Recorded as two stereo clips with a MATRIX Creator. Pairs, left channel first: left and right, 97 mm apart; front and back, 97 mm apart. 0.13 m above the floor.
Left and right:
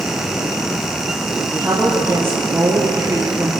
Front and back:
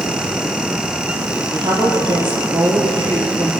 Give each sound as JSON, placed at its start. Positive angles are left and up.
{"t": 1.5, "sound": "a woman speaking", "azimuth_deg": -155, "distance_m": 4.5}